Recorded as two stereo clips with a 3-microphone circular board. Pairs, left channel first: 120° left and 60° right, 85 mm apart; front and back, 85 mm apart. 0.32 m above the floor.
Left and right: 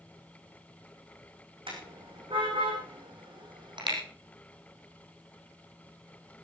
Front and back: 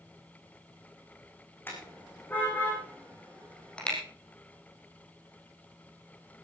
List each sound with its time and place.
1.7 s a car horn: 65° right, 9 m; by 4.0 s 80° right, 6 m